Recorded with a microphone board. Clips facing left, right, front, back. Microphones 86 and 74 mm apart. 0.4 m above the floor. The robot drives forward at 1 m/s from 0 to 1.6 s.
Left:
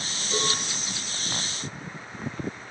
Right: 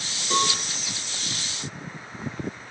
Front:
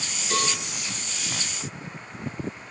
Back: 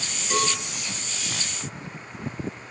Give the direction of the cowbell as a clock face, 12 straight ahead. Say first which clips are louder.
Right 5 dB, back 2 dB; 3 o'clock.